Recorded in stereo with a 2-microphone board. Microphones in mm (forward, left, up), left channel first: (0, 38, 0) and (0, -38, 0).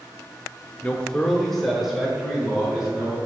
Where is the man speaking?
20° left (ahead or behind), 0.8 m; by 3.2 s 10° right (ahead or behind), 3 m.